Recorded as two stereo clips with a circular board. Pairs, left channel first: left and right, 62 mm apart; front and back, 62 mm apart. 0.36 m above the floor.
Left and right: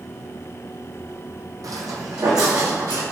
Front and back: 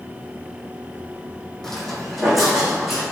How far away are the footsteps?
About 0.8 m.